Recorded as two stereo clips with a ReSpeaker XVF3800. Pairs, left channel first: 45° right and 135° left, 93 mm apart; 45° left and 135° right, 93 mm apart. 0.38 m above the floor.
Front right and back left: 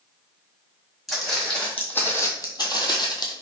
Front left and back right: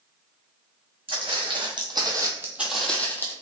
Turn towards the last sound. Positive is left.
turn(degrees=-15)